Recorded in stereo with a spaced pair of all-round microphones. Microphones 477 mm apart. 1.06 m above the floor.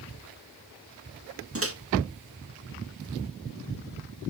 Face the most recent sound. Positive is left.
turn(degrees=-30)  # may be behind; listen again after turning